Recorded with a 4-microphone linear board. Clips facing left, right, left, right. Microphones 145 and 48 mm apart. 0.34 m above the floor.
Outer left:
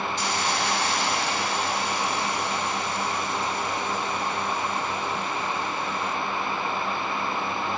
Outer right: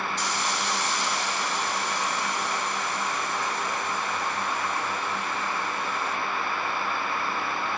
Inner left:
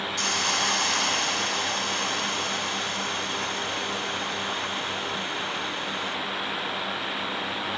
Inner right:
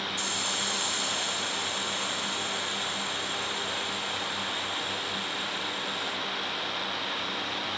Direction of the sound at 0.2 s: 65° left (ahead or behind).